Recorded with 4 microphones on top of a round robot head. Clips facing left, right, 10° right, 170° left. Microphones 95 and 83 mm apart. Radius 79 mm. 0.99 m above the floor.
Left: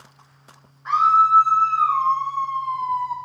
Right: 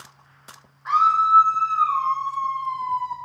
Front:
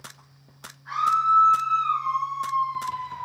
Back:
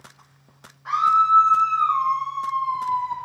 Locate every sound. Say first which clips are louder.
0.8 s a scream: left 2 dB, back 4 dB; straight behind, 4 m; by 3.1 s 150° left, 3 m